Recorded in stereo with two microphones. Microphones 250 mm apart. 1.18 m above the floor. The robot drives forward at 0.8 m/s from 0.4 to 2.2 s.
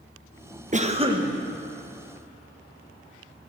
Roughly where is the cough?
Right.